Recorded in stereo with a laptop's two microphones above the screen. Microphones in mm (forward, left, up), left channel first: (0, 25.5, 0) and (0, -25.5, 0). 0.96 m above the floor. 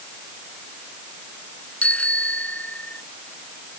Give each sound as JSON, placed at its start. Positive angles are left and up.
{"t": 1.8, "sound": "a bicycle bell", "side_deg": 25}